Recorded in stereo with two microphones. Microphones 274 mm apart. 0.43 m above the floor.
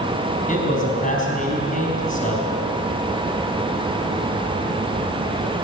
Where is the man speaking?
30° left (ahead or behind), 4 m.